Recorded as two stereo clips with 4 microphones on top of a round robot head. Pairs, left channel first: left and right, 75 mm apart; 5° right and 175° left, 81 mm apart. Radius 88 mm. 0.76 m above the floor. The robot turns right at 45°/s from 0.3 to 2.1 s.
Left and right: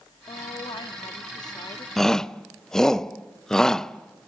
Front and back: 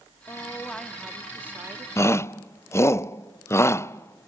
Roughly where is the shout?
Ahead.